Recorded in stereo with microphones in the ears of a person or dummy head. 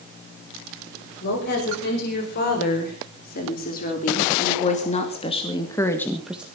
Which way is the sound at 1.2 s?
45° left (ahead or behind).